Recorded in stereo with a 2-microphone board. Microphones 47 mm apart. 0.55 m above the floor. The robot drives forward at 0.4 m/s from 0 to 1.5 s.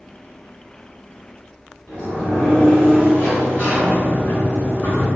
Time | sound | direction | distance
1.9 | a sliding door | 35° left (ahead or behind) | 1.8 m